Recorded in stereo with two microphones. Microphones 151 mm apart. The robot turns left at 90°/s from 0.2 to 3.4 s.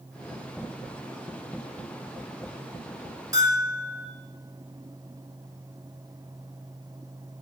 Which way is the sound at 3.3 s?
20° right (ahead or behind).